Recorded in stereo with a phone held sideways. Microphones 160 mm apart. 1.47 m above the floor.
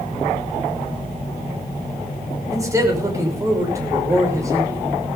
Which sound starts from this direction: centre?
A man speaking, at 2.5 s.